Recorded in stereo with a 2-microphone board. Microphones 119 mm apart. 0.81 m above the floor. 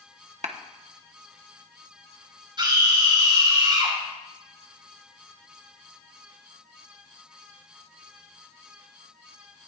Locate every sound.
0.4 s a clap: 75° right (ahead or behind), 1.0 m
2.6 s a scream: 40° right (ahead or behind), 4 m